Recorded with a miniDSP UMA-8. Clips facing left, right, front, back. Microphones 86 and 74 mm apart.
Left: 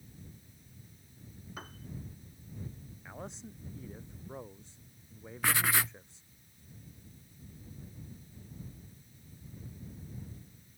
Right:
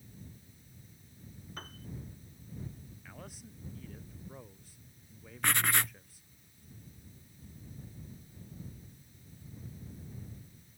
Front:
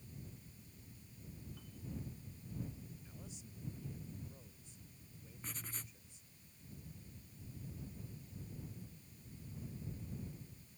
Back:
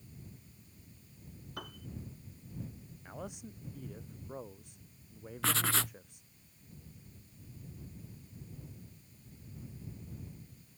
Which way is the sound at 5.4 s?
175° left.